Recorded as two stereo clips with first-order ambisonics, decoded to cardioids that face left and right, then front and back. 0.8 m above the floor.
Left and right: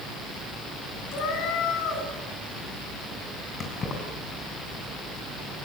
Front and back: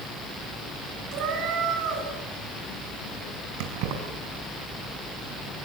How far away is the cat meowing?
About 4 m.